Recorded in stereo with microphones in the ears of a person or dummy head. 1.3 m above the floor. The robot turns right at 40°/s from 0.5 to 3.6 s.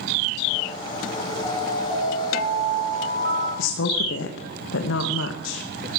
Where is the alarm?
175° right, 7 m; by 3.5 s 95° right, 7 m.